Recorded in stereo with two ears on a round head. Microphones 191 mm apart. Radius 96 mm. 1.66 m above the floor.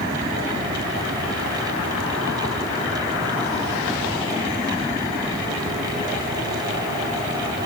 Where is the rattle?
I don't hear a rattle.